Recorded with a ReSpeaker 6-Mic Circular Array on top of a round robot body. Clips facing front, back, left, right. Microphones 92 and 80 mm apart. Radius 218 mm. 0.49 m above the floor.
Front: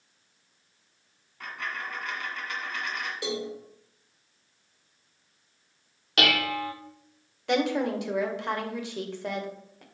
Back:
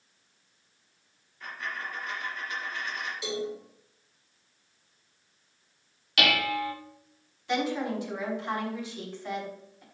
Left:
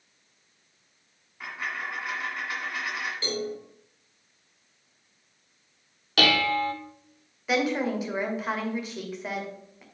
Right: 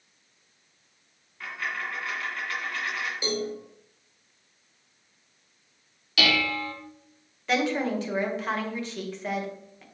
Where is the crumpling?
I don't hear crumpling.